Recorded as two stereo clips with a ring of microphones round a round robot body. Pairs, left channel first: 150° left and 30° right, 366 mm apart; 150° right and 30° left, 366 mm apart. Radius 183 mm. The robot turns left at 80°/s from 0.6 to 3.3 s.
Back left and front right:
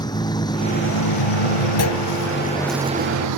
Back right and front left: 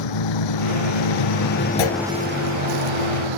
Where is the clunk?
155° right; by 2.0 s 175° right.